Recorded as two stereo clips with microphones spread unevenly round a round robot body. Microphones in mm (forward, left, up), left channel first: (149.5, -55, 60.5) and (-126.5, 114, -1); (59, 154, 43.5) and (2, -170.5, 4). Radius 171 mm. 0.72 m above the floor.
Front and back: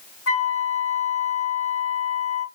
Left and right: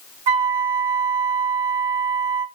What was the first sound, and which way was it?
A flute, 85° right.